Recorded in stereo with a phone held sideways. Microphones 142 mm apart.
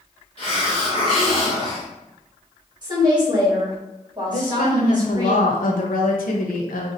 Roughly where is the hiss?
Left.